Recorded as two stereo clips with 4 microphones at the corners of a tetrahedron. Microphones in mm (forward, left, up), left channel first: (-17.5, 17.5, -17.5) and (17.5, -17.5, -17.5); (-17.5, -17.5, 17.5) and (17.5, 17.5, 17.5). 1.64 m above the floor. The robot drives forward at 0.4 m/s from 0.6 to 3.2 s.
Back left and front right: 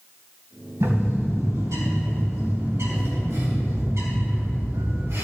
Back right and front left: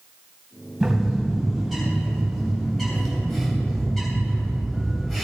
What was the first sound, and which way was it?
A bird, 40° right.